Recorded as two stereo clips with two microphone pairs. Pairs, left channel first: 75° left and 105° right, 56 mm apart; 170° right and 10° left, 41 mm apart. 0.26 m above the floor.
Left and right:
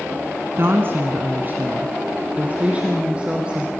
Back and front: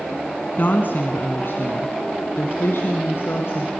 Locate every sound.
0.6 s a woman speaking: 145° right, 2 m; by 3.7 s 175° right, 3.5 m